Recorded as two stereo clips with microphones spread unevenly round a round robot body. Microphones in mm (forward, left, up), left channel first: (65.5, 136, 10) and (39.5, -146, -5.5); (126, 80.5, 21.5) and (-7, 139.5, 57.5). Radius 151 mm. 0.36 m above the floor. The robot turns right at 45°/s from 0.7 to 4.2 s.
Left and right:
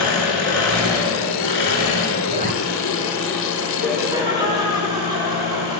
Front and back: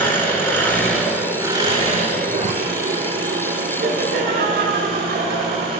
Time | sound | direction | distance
0.0 | an engine running | 55° left | 4 m
2.3 | a zipper | 155° right | 0.6 m
3.8 | laughter | 170° left | 2.5 m